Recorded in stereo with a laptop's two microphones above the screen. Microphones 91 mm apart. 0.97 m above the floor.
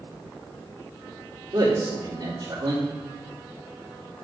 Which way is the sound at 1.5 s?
60° right (ahead or behind).